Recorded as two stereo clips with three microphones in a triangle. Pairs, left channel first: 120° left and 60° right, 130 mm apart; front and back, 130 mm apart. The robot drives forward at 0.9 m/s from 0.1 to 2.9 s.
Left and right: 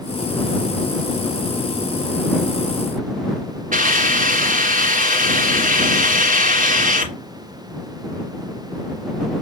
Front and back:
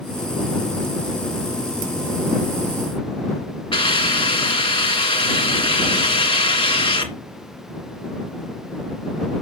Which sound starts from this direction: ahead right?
A hiss, at 3.7 s.